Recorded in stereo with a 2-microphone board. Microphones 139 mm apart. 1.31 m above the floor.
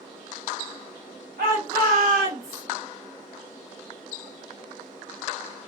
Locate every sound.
1.4 s a shout: 80° right, 0.9 m; by 2.6 s 85° right, 1.5 m